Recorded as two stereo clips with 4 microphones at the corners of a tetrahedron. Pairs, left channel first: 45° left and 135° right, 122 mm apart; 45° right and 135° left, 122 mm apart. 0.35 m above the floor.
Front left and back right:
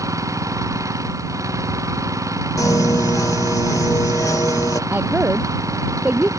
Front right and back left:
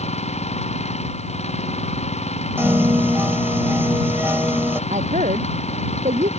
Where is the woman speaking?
150° left.